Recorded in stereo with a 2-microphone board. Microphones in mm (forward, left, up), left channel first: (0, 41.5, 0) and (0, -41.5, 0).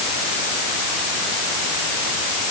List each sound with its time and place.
Only background noise.